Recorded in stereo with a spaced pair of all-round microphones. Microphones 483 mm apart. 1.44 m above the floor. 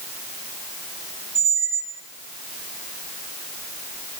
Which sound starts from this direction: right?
A squeak, at 1.4 s.